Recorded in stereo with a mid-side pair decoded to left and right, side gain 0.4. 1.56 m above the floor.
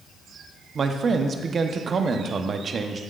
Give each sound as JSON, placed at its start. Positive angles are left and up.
{"t": 0.8, "sound": "a man speaking", "azimuth_deg": -50, "distance_m": 1.0}